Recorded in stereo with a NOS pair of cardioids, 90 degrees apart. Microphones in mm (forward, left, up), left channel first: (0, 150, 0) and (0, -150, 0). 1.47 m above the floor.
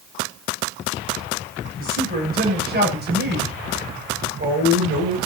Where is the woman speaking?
30° right, 9.5 m; by 5.2 s 40° right, 9.5 m.